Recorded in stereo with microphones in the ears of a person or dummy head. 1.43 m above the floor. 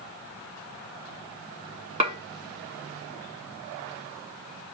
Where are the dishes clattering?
25° right (ahead or behind), 0.7 m.